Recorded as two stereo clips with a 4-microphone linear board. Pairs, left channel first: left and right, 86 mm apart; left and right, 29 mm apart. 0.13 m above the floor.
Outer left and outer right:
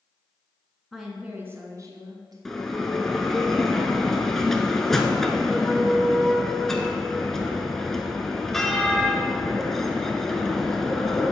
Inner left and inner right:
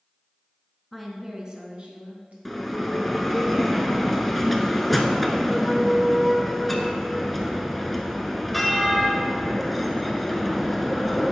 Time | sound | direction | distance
0.9 | a woman speaking | centre (ahead or behind) | 1.1 m
2.5 | a bell | 5° left (ahead or behind) | 0.7 m